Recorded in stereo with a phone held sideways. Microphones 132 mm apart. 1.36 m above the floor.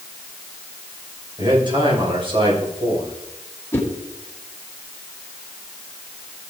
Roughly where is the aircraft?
I don't hear an aircraft.